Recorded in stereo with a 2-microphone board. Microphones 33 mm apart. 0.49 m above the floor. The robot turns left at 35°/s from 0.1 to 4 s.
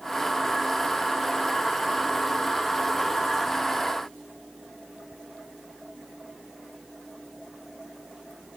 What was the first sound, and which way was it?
Only background noise.